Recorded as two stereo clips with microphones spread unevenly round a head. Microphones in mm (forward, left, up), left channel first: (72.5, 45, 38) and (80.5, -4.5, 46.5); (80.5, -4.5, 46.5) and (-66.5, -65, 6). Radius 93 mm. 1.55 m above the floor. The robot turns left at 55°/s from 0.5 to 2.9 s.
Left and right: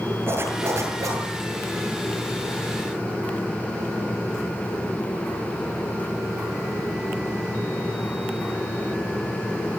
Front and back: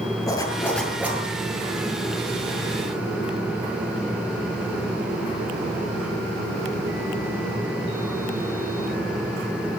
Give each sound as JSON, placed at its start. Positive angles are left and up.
{"t": 0.3, "sound": "a zipper", "azimuth_deg": -45, "distance_m": 10.0}